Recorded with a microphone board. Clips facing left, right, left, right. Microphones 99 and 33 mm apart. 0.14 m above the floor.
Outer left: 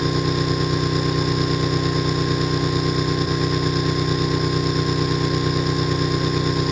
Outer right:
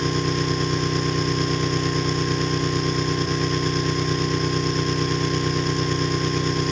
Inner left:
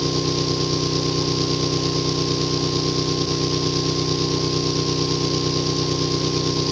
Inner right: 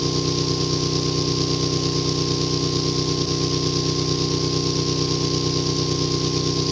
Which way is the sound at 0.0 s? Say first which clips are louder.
Outer left 2 dB, inner left 1 dB; 5° left (ahead or behind).